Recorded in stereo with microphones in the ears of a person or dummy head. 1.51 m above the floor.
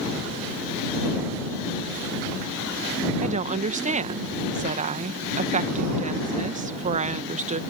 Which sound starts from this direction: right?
A woman speaking, at 3.2 s.